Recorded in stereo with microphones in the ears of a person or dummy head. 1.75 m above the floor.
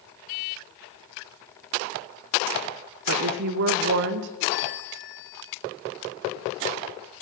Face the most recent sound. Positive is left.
turn(degrees=60)  # may be behind; listen again after turning